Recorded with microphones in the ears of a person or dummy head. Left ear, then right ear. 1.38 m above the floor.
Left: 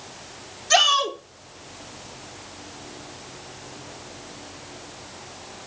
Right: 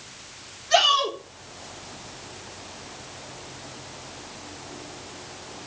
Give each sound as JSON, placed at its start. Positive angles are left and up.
{"t": 0.7, "sound": "a shout", "side_deg": 70, "distance_m": 1.7}